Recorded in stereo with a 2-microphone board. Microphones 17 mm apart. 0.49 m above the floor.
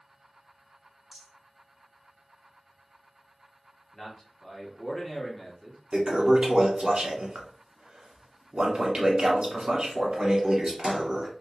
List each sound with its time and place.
1.1 s a rattle: 35° right (ahead or behind), 1.5 m
3.9 s a man speaking: 25° left (ahead or behind), 1.0 m
5.9 s a toilet flushing: 65° right (ahead or behind), 0.9 m